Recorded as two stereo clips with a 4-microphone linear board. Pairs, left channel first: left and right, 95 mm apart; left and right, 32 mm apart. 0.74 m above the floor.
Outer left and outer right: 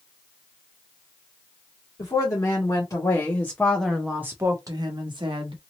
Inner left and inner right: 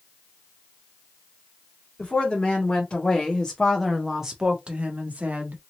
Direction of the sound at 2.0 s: 45° left (ahead or behind).